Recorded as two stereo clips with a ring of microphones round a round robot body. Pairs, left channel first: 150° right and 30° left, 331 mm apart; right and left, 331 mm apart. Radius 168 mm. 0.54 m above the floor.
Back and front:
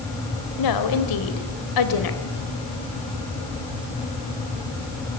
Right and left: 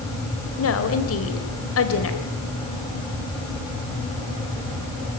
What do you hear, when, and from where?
0.6 s a woman speaking: 135° right, 3 m